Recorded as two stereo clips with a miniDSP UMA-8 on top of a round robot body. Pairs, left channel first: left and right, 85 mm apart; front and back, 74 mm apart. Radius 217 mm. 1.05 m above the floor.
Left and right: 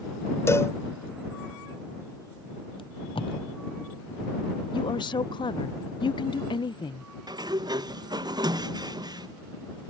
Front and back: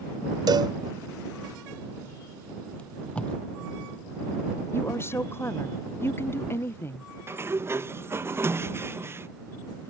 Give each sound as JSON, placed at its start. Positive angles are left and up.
{"t": 0.5, "sound": "a cowbell", "azimuth_deg": 150}
{"t": 2.8, "sound": "tape being pulled", "azimuth_deg": 75}
{"t": 4.7, "sound": "a woman speaking", "azimuth_deg": 60}
{"t": 7.3, "sound": "a sliding door", "azimuth_deg": -125}